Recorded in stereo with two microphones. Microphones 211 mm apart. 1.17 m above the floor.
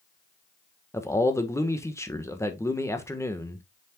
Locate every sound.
0.9 s a man speaking: 15° left (ahead or behind), 1.3 m